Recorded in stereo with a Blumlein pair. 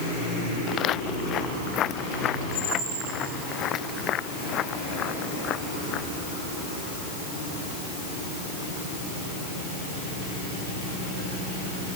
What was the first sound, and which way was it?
Footsteps, 30° left.